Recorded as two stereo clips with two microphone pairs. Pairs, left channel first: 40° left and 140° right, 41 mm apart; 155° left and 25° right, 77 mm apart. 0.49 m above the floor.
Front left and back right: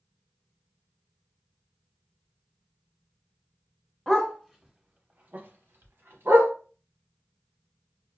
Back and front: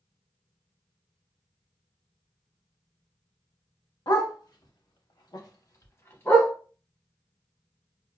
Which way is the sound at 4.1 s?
125° left.